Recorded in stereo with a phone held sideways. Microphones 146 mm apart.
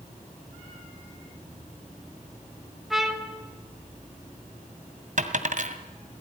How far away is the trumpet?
About 2.5 m.